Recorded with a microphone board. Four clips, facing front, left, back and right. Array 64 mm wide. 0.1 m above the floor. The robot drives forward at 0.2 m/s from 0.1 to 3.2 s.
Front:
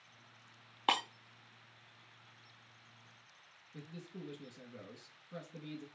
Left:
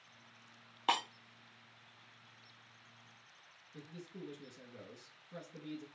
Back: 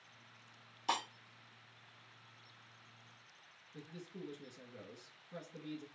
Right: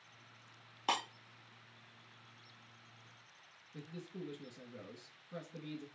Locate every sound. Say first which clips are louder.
0.9 s breaking glass: left 2 dB, front 4 dB; 10° left, 0.5 m
3.7 s a man speaking: right 2 dB, front 1 dB; 35° right, 1.1 m